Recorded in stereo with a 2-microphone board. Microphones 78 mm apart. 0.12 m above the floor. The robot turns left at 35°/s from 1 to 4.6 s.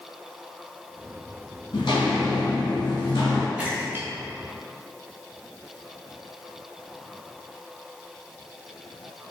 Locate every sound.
1.7 s footsteps: 75° left (ahead or behind), 1.4 m; by 3.5 s 85° left, 1.7 m
3.6 s a splash: 15° right (ahead or behind), 0.8 m; by 5.7 s 45° right (ahead or behind), 0.8 m